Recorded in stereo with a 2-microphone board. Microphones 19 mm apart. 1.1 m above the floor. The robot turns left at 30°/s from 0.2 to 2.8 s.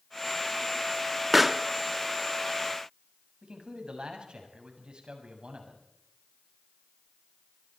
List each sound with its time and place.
1.3 s a pop: 15° right (ahead or behind), 0.9 m; by 1.6 s 5° right (ahead or behind), 0.9 m
3.4 s a man speaking: 60° right (ahead or behind), 7 m